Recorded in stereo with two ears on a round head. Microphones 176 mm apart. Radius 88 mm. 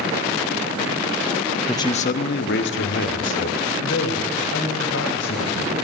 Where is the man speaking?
10° left (ahead or behind), 0.7 m; by 5.8 s 70° left (ahead or behind), 5.5 m.